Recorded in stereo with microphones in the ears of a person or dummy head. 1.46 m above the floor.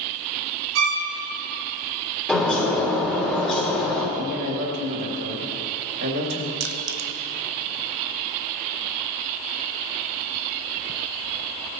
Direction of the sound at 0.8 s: 80° right.